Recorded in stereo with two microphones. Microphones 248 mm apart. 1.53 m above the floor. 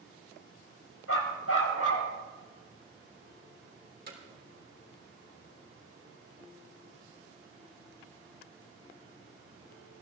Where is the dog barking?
70° left (ahead or behind), 3.5 m; by 2.1 s 75° left (ahead or behind), 3.5 m.